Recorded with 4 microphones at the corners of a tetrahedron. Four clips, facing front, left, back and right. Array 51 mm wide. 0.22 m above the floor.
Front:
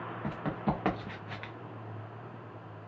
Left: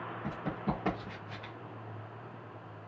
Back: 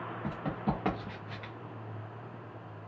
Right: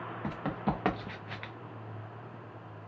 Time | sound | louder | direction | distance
0.2 | running footsteps | right 3 dB, front 1 dB | 70° right | 1.9 m